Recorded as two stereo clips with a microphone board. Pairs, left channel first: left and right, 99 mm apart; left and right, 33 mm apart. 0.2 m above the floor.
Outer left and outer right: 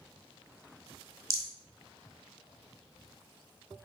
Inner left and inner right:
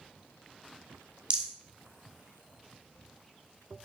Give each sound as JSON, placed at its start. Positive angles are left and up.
{"t": 1.3, "sound": "a rattle", "side_deg": -30, "distance_m": 0.9}